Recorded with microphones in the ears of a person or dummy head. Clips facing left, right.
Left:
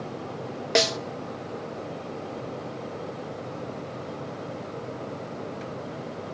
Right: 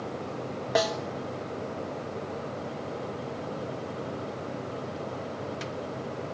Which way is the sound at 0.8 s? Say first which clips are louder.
Left 2 dB; 35° left (ahead or behind).